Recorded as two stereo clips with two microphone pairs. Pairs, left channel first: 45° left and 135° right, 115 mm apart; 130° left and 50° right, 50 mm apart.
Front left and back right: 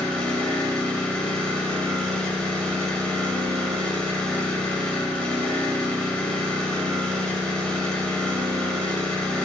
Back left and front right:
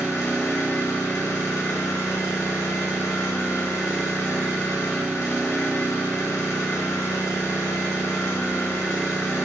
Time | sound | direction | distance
0.0 | an engine running | 125° left | 1.7 m